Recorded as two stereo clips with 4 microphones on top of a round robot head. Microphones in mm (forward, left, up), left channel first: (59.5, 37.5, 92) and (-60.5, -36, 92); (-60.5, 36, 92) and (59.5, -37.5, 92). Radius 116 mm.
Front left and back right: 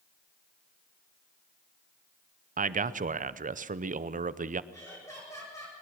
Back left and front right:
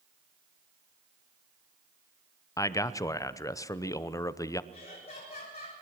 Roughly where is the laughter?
Left.